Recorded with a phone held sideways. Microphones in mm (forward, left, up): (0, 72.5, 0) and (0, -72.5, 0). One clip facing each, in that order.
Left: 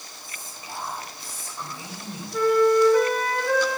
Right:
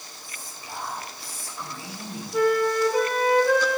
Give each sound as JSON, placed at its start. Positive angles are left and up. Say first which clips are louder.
{"t": 0.2, "sound": "whispering", "louder": "left 1 dB", "side_deg": 20, "distance_m": 3.5}
{"t": 2.3, "sound": "a flute", "louder": "left 3 dB", "side_deg": -15, "distance_m": 4.0}